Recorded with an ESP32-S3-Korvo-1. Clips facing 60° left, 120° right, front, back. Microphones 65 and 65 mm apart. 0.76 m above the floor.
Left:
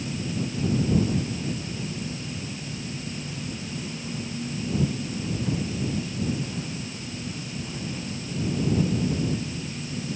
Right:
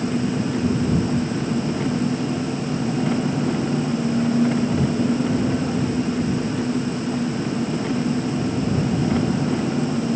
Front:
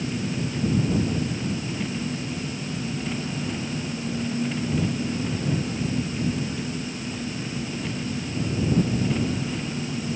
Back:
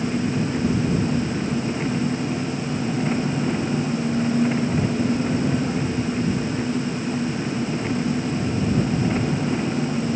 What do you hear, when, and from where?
0.0 s an engine running: 120° right